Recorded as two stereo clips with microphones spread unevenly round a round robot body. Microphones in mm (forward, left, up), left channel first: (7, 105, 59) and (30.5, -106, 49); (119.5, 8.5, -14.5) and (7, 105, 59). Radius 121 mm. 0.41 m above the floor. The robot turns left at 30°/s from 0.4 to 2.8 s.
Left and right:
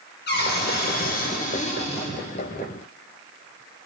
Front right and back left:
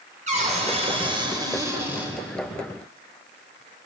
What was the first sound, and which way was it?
A cupboard door, 90° left.